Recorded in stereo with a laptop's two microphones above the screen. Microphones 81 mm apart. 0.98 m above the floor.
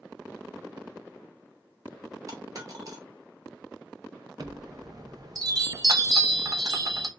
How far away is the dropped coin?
About 0.9 m.